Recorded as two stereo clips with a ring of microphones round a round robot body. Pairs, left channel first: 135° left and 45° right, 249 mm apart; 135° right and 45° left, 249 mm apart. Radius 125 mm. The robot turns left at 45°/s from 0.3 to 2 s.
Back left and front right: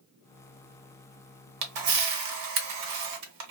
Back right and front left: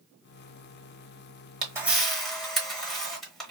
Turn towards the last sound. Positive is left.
turn(degrees=-45)